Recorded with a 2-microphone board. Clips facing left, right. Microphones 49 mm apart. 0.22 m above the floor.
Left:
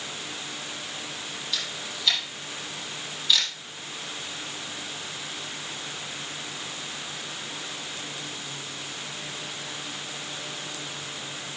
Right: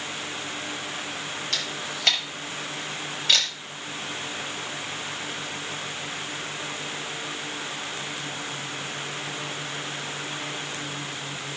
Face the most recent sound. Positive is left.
turn(degrees=-65)  # may be behind; listen again after turning